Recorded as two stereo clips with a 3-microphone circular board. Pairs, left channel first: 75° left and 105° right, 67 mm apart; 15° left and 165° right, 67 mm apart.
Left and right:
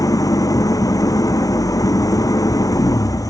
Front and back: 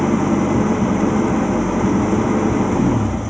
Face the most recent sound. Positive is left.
turn(degrees=105)